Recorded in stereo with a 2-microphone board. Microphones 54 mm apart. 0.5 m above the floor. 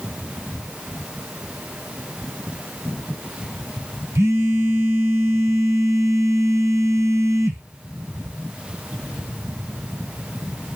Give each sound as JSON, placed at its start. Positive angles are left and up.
{"t": 4.2, "sound": "a phone buzzing", "side_deg": -85, "distance_m": 1.4}